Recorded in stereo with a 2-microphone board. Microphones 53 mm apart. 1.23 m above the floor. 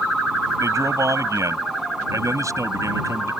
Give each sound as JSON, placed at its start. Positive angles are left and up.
{"t": 0.6, "sound": "a man speaking", "side_deg": -90}